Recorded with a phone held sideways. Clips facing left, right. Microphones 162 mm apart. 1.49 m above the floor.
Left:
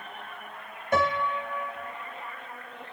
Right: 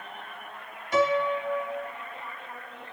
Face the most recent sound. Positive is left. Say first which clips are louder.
# right 3 dB
turn(degrees=55)  # may be behind; listen again after turning